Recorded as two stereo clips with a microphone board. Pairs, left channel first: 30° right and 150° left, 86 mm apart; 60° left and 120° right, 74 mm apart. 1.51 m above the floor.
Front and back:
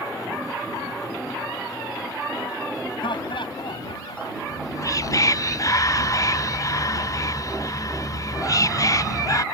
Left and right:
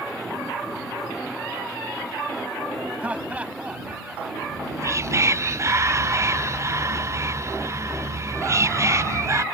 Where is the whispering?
75° right.